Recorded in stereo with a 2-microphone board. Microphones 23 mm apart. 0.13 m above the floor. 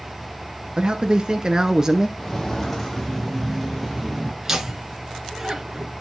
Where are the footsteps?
15° left (ahead or behind), 2.5 m; by 4.3 s 5° right (ahead or behind), 3.5 m.